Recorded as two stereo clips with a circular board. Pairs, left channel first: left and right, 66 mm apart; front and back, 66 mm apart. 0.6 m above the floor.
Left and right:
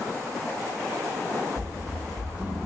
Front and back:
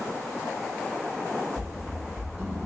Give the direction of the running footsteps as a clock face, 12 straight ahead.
9 o'clock.